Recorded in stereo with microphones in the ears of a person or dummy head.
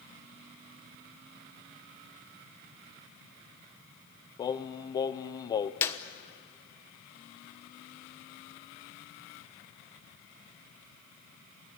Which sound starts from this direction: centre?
A clap, at 5.8 s.